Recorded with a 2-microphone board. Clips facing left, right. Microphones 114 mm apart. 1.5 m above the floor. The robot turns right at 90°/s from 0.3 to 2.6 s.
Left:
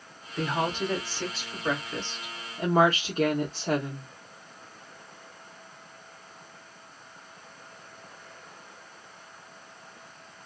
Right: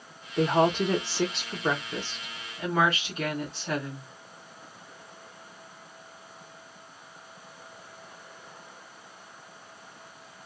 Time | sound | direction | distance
0.4 | a woman speaking | 160° right | 0.9 m